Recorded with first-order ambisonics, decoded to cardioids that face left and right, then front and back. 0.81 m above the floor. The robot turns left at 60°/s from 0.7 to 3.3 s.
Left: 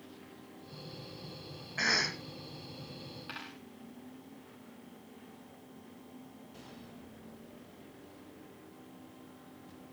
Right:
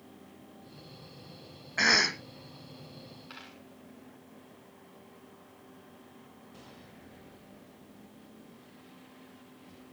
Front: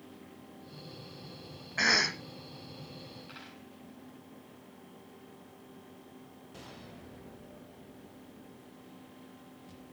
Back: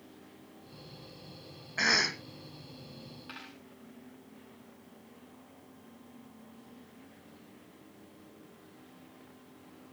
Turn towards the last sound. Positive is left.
turn(degrees=110)